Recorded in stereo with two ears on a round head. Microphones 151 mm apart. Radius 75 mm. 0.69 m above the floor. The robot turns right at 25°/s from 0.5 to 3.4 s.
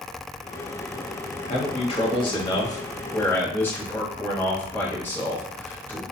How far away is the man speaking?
About 0.8 m.